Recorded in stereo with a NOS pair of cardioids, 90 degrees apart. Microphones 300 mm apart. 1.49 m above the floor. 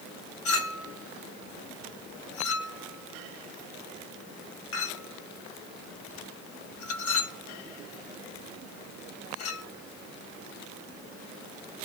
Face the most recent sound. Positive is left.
turn(degrees=50)